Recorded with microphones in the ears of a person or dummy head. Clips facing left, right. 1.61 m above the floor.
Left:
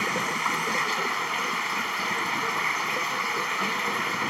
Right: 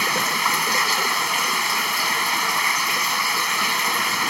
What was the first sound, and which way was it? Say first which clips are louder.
Running water: right 4 dB; 55° right (ahead or behind).